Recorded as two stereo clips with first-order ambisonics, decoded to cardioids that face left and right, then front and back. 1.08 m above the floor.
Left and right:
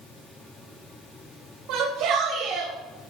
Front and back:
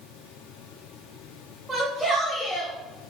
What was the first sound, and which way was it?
A shout, 95° right.